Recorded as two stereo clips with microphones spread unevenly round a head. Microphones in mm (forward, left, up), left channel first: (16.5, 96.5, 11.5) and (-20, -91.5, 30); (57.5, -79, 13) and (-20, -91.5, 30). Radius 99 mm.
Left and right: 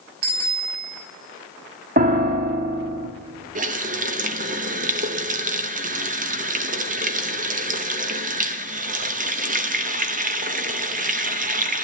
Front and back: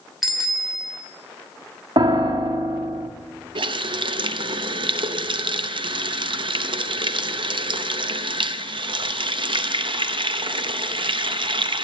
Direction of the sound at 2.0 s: 150° right.